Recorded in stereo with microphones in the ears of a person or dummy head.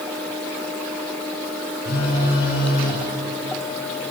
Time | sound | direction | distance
1.9 | a phone buzzing | 55° left (ahead or behind) | 5.5 m